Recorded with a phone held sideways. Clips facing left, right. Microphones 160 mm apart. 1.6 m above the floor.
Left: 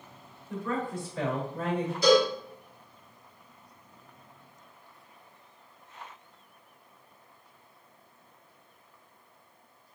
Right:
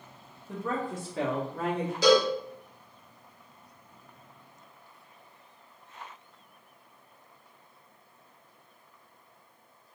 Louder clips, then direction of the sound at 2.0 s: Even; 80° right.